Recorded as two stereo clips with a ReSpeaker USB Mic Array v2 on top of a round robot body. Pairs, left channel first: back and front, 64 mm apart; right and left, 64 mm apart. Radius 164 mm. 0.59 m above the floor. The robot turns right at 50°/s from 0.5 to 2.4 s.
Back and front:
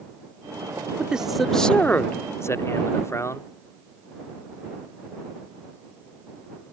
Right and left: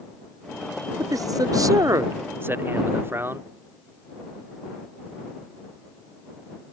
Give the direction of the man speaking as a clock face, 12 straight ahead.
10 o'clock.